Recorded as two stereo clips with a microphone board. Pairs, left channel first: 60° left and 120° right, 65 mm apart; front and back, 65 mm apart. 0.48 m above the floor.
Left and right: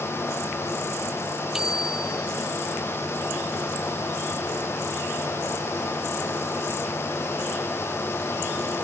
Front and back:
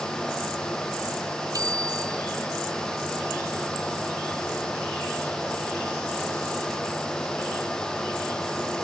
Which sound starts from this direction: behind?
A bicycle bell, at 1.5 s.